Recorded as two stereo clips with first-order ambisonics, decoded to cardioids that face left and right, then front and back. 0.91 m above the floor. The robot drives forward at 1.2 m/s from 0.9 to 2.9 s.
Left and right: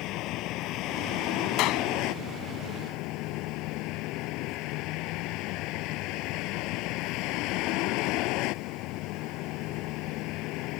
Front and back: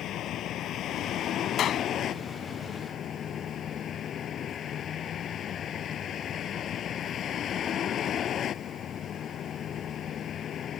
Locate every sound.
0.0 s a vehicle: 50° left; by 10.8 s 60° left
1.6 s a clap: 55° left